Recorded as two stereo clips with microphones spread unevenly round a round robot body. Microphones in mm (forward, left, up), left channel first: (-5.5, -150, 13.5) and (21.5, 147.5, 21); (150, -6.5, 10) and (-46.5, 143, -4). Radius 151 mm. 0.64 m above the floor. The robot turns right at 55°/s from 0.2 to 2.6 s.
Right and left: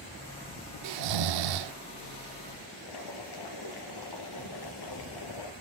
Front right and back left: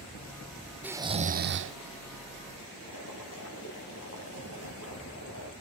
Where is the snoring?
55° left, 0.5 m; by 1.8 s 110° left, 0.5 m.